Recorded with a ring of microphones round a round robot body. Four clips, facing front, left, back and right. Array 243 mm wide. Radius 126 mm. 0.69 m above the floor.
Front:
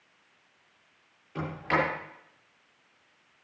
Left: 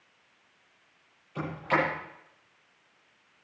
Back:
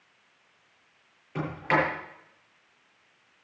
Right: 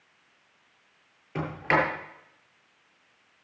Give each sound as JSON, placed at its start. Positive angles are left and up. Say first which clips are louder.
{"t": 1.4, "sound": "a sliding door", "louder": "right 3 dB, back 2 dB", "azimuth_deg": -110, "distance_m": 6.5}